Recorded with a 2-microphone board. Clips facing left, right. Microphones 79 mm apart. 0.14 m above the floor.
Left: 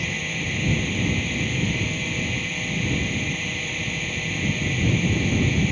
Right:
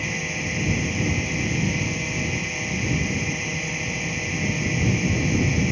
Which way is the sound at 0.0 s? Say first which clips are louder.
Right 1 dB; 10° right (ahead or behind).